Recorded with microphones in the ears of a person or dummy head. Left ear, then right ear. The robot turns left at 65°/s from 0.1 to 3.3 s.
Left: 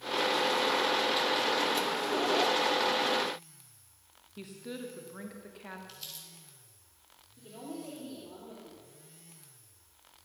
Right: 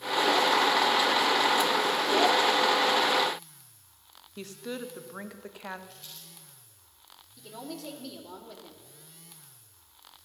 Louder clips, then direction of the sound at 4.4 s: Right 5 dB; 30° right (ahead or behind).